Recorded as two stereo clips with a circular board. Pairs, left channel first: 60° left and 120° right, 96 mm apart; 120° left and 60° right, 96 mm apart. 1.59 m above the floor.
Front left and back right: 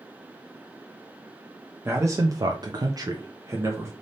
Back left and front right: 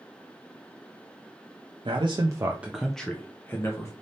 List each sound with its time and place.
1.9 s a man speaking: 60° right, 0.6 m; by 3.9 s straight behind, 1.1 m